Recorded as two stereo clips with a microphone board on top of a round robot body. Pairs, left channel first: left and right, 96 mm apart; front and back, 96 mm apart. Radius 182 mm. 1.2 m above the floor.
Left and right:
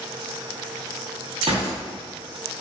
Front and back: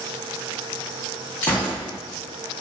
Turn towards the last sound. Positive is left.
turn(degrees=-70)